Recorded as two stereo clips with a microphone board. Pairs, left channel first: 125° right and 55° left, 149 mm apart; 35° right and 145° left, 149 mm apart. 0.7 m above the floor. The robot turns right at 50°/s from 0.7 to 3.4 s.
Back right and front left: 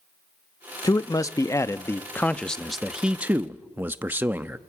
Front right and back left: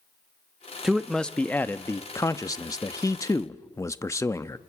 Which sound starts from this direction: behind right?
A man speaking, at 0.8 s.